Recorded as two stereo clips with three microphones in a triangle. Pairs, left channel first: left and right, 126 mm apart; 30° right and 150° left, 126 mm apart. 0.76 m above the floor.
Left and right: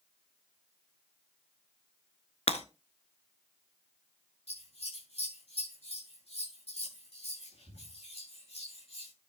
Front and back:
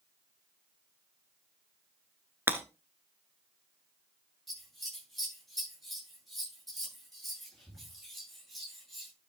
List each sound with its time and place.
2.5 s breaking glass: 80° left, 1.3 m
4.5 s scissors: 60° left, 8.5 m